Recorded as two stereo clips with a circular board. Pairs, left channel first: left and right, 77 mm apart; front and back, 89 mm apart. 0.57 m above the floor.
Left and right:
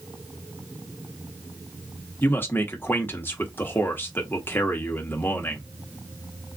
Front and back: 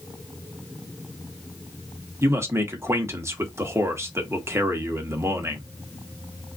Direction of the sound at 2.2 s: 135° left.